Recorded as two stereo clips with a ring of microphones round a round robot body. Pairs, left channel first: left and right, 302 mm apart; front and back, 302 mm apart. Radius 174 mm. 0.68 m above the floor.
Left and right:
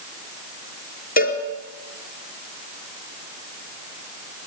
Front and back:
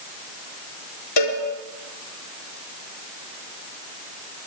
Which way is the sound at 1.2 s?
30° left.